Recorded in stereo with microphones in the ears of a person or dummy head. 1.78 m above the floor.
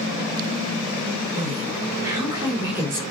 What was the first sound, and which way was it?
A woman speaking, 25° right (ahead or behind).